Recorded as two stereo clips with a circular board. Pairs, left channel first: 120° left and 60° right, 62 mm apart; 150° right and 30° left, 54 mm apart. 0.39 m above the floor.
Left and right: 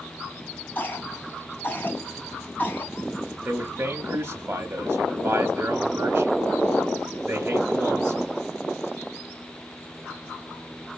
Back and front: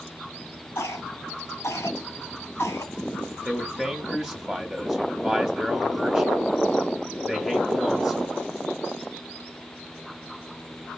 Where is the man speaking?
45° right, 1.2 m.